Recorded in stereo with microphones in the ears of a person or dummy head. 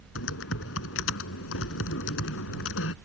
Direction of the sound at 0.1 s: 75° left (ahead or behind).